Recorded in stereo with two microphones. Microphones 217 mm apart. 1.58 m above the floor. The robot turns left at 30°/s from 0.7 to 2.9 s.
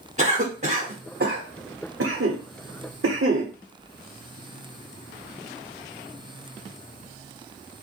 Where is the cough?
30° right (ahead or behind), 1.2 m; by 3.5 s 80° right, 1.2 m.